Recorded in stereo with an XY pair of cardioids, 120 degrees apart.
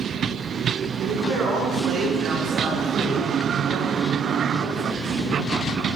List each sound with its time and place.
1.0 s a man speaking: 60° right, 4 m; by 5.5 s 70° right, 6.5 m